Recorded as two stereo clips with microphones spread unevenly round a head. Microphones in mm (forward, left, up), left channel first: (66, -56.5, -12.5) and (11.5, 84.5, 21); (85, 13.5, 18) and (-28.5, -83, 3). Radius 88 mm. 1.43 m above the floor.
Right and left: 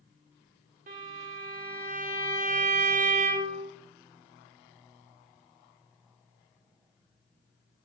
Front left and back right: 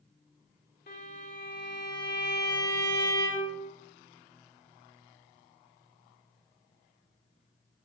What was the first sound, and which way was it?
A violin, 85° left.